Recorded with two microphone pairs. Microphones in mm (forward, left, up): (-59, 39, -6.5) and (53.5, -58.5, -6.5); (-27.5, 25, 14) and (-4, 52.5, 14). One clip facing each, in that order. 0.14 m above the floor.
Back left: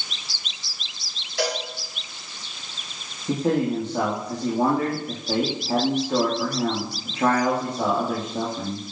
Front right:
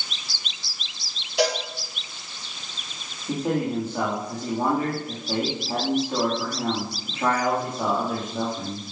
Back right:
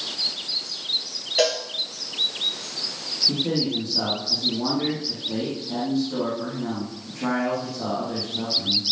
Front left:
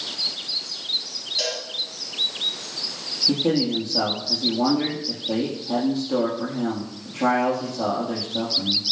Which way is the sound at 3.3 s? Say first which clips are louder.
Back left 3 dB, front left 4 dB; 80° left.